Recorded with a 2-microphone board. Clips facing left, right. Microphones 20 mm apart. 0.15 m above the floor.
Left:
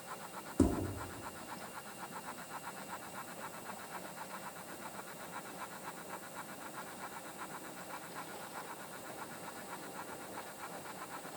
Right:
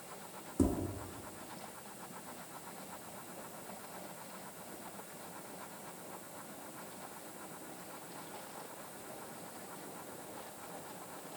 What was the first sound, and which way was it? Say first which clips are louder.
Tapping: left 1 dB; 20° left (ahead or behind).